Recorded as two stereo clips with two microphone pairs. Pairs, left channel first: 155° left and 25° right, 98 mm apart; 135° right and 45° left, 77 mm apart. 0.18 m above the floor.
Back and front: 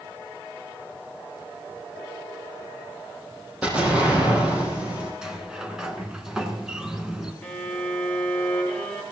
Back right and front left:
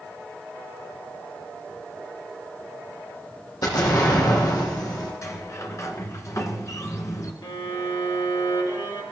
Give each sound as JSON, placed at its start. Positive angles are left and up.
{"t": 3.6, "sound": "an explosion", "azimuth_deg": -105, "distance_m": 5.0}
{"t": 5.2, "sound": "a sliding door", "azimuth_deg": -110, "distance_m": 1.9}
{"t": 7.4, "sound": "a violin", "azimuth_deg": -130, "distance_m": 3.5}